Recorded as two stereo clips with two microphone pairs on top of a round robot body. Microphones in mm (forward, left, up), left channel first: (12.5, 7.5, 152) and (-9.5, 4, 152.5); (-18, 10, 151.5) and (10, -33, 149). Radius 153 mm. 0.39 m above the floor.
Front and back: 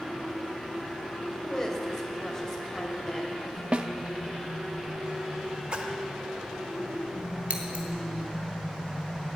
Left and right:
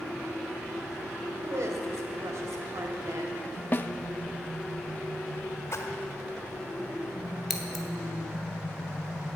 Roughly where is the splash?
Behind left.